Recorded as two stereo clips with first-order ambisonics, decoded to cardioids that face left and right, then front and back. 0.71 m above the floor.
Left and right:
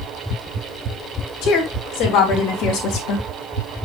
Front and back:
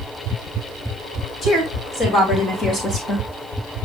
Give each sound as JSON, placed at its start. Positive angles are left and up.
{"t": 1.4, "sound": "a woman speaking", "azimuth_deg": 55, "distance_m": 3.5}